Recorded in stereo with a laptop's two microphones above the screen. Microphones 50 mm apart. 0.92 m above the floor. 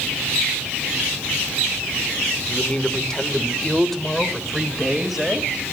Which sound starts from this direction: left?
A man speaking, at 2.5 s.